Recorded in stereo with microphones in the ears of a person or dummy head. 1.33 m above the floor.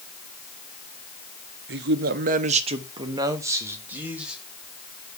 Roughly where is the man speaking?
Right.